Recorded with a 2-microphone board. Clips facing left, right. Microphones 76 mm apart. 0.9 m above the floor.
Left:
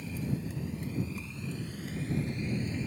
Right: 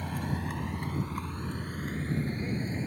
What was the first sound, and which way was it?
A vehicle, 70° right (ahead or behind).